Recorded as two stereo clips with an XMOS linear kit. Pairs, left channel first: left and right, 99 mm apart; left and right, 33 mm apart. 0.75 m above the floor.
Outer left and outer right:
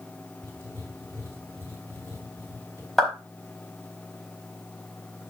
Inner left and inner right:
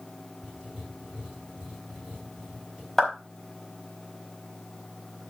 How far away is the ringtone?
No ringtone in this recording.